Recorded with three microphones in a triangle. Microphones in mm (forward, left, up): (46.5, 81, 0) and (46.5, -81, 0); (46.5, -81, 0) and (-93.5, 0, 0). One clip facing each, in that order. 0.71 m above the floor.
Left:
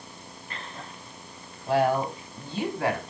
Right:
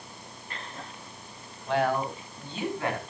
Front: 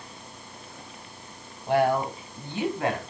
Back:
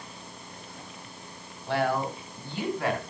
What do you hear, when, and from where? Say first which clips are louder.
1.7 s a woman speaking: left 3 dB, front 4 dB; 40° left, 4.5 m; by 3.0 s 35° left, 4 m